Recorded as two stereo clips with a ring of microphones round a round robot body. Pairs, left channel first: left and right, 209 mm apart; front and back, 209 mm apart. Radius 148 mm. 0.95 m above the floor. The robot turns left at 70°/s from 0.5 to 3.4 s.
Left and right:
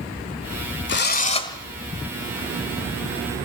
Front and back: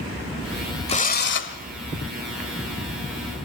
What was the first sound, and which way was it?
A drill, 60° left.